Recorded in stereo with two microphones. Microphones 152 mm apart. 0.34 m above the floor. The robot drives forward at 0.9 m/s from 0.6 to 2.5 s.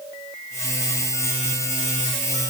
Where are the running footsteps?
I don't hear running footsteps.